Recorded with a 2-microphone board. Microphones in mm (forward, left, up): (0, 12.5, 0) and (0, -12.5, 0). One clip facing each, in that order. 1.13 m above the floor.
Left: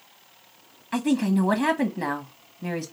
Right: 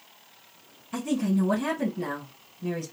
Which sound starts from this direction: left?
A woman speaking, at 0.9 s.